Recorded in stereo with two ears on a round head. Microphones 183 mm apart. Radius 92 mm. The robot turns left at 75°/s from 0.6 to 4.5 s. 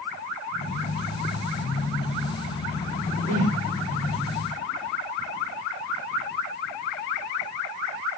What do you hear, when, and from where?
3.3 s a whoosh: 75° right (ahead or behind), 1.8 m; by 3.6 s 55° right (ahead or behind), 1.8 m